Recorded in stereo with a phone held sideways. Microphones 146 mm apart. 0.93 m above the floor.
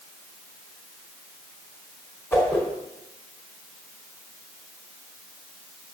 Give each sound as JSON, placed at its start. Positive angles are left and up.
{"t": 2.3, "sound": "a whoosh", "side_deg": 15, "distance_m": 4.5}